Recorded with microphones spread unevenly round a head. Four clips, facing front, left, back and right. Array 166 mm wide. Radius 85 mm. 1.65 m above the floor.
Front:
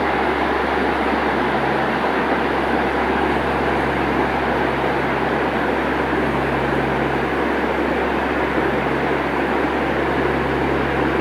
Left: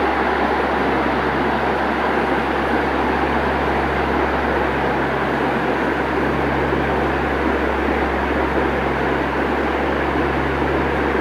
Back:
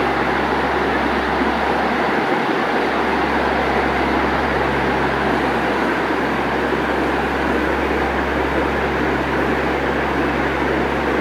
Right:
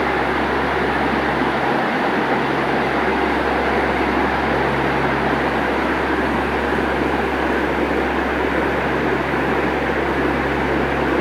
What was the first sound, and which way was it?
Only background noise.